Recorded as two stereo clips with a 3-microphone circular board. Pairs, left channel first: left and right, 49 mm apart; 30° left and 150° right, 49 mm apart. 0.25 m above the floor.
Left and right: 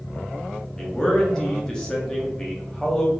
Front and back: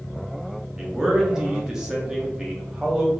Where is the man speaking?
140° left, 1.0 m.